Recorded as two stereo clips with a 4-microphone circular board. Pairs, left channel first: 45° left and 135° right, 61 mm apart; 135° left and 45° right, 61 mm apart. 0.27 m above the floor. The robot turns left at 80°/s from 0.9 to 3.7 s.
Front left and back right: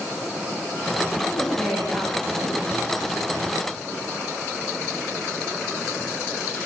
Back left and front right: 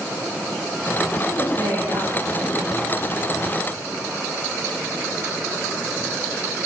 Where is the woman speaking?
10° right, 9.5 m; by 2.8 s 130° right, 9.5 m.